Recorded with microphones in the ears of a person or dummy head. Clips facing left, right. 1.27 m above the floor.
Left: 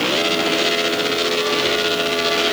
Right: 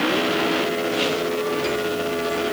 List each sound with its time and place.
Only background noise.